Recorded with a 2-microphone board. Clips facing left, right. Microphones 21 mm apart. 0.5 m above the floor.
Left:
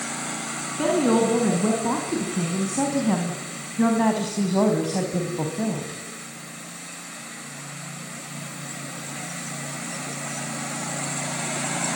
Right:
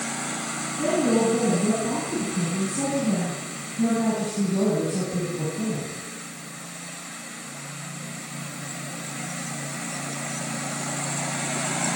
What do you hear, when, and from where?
0.8 s a woman speaking: 55° left (ahead or behind), 5.5 m; by 6.0 s 70° left (ahead or behind), 3.5 m